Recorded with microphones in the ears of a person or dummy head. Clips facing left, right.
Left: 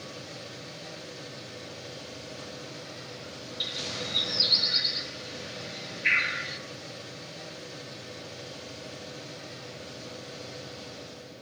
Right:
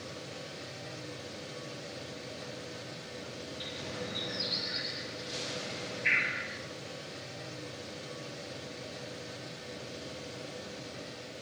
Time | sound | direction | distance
3.6 | a bird | 65° left (ahead or behind) | 2.5 m